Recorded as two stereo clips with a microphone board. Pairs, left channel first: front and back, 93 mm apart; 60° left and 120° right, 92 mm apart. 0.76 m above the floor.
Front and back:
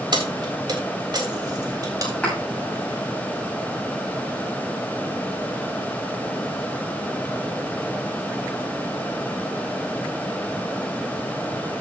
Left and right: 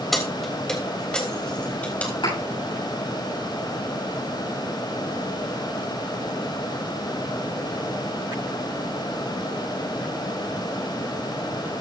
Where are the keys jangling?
150° left, 3 m; by 2.1 s 135° left, 3.5 m.